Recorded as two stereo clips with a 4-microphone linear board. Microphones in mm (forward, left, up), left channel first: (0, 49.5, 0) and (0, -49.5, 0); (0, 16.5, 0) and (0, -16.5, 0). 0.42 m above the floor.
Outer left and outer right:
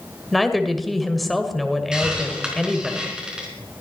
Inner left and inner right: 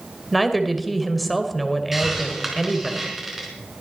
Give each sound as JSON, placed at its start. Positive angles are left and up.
{"t": 0.3, "sound": "a woman speaking", "side_deg": 0, "distance_m": 1.8}
{"t": 1.9, "sound": "a hiss", "side_deg": -10, "distance_m": 4.0}